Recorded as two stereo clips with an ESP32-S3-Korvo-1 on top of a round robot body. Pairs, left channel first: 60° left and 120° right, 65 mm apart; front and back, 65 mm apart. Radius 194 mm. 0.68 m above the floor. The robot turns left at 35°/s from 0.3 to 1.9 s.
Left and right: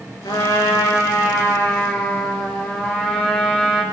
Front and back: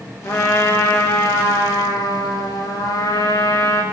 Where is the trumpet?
45° left, 8 m; by 3.8 s 10° right, 8 m.